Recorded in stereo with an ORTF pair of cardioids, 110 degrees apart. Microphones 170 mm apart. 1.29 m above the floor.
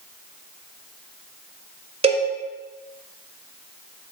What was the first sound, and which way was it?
A cowbell, 35° right.